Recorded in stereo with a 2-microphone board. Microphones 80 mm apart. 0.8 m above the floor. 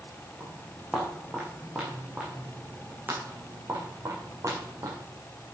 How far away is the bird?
I don't hear a bird.